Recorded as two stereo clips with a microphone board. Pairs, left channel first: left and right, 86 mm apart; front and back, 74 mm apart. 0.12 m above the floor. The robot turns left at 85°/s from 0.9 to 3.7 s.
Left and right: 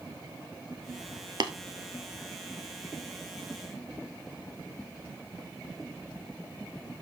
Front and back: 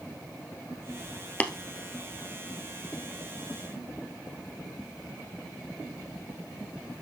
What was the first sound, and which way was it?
Tapping, 65° right.